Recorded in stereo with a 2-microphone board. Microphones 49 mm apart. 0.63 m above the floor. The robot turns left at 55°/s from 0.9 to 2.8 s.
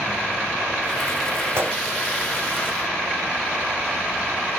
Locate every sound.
1.6 s a gunshot: 55° right (ahead or behind), 2 m; by 1.8 s 45° right (ahead or behind), 2 m